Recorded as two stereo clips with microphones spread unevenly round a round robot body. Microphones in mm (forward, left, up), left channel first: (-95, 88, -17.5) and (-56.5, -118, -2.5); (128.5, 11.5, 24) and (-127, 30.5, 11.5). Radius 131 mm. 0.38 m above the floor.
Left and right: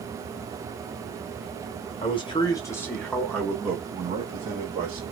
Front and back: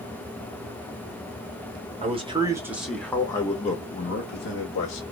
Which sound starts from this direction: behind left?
A man speaking, at 2.0 s.